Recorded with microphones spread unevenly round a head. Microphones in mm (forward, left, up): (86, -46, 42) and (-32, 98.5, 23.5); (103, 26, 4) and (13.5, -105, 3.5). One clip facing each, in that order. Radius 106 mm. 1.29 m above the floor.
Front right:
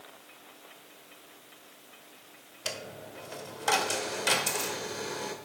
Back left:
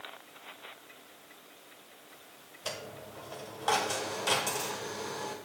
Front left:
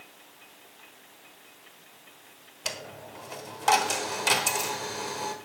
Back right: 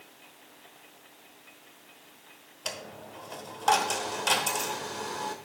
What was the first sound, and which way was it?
A dropped coin, 20° right.